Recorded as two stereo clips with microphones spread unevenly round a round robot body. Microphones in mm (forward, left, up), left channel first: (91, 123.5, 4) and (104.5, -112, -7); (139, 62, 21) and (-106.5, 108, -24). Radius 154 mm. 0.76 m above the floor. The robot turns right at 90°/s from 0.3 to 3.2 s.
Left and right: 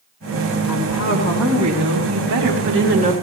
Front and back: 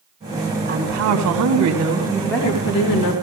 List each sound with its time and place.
0.7 s a woman speaking: 115° left, 5 m; by 3.1 s 20° right, 5 m